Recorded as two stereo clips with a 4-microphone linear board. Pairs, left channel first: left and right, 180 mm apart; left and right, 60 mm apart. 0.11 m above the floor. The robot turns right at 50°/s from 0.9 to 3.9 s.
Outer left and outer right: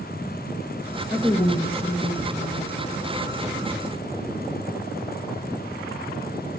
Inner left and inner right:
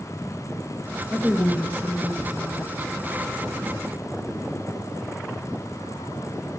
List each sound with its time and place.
1.1 s a woman speaking: 5° left, 2.5 m; by 2.8 s 90° left, 2.5 m